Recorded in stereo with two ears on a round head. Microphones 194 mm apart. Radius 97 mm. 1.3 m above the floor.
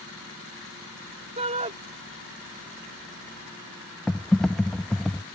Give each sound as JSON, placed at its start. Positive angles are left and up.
{"t": 1.4, "sound": "a shout", "side_deg": -30}
{"t": 4.1, "sound": "typing on a keyboard", "side_deg": 5}